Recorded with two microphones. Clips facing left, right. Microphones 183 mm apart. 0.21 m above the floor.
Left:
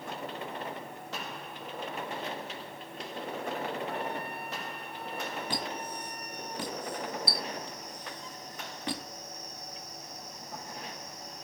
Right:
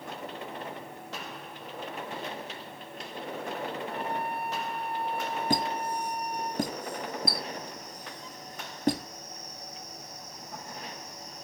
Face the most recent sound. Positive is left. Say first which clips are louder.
# right 7 dB
turn(degrees=-45)  # may be behind; listen again after turning